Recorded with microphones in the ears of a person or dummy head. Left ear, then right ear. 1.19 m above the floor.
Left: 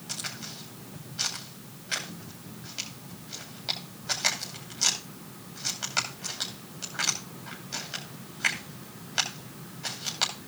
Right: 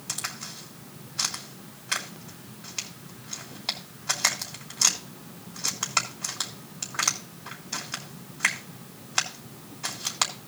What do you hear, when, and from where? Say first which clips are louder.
0.1 s a crack: right 2 dB; 20° right (ahead or behind), 3 m